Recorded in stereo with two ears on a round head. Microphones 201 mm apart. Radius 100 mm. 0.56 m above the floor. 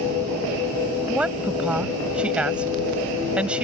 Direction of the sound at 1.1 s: 5° right (ahead or behind).